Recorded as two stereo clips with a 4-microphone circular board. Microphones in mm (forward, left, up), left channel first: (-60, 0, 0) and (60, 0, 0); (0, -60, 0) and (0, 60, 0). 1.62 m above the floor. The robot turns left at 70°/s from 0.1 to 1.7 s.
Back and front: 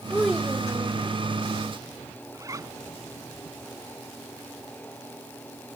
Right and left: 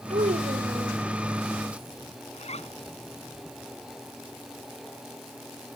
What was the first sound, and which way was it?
A child speaking, 100° left.